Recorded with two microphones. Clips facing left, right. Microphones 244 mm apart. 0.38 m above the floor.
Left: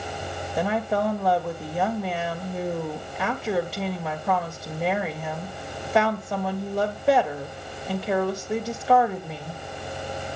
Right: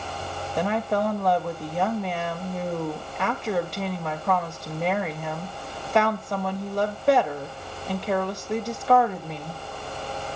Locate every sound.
0.6 s a woman speaking: 5° left (ahead or behind), 1.6 m